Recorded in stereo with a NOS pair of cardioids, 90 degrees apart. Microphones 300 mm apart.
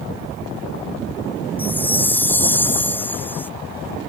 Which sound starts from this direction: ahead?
A chime, at 1.6 s.